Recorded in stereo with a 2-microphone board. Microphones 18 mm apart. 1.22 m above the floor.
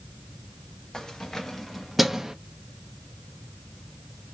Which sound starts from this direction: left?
Keys jangling, at 0.9 s.